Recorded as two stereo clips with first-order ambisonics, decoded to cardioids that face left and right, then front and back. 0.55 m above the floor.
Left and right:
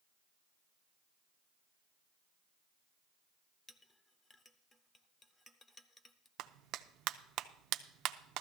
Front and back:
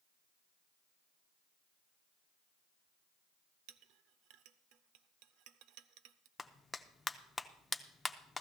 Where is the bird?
I don't hear a bird.